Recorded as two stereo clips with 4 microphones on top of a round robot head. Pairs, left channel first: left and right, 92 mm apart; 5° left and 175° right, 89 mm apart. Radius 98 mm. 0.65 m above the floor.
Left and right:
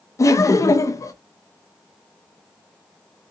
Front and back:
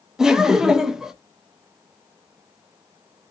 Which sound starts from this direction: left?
Laughter, at 0.2 s.